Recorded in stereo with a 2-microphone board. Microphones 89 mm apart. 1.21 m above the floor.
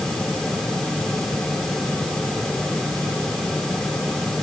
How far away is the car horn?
I don't hear a car horn.